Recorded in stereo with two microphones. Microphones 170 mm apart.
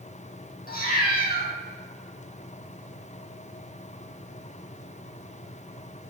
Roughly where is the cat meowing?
Left.